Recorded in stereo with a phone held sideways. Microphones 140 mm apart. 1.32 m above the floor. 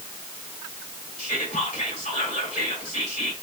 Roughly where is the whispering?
Left.